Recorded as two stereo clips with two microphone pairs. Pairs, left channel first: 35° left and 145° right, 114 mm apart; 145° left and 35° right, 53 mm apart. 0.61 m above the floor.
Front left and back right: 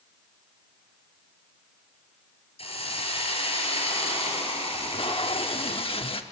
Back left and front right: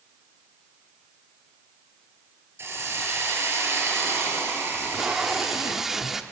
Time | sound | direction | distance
2.6 | a hiss | 5° left | 4 m
4.7 | tape being pulled | 50° left | 1.0 m